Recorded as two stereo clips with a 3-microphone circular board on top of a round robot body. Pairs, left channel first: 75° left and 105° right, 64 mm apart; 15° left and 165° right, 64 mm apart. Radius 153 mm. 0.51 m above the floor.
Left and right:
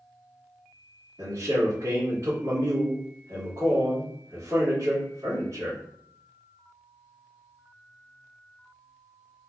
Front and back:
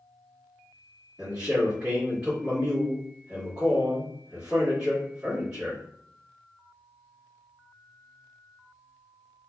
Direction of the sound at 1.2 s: 95° right.